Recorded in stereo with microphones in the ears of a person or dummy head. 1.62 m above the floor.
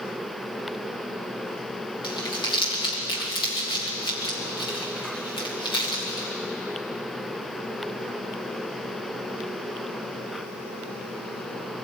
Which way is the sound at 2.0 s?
30° left (ahead or behind).